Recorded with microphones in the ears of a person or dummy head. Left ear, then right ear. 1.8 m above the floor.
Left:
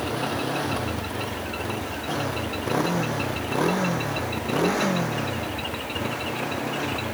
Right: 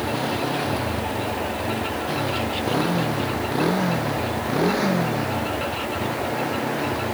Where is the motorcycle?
25° left (ahead or behind); by 7.1 s 15° left (ahead or behind).